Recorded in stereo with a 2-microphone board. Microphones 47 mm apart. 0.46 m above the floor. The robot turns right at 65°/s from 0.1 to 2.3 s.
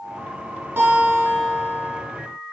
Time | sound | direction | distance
0.8 | a guitar | 140° right | 5.5 m